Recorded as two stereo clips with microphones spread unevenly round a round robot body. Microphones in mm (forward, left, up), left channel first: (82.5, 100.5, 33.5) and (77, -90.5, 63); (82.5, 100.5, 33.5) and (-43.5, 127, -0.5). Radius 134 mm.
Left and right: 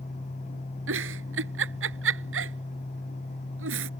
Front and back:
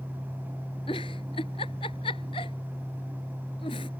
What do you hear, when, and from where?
0.9 s a giggle: 85° right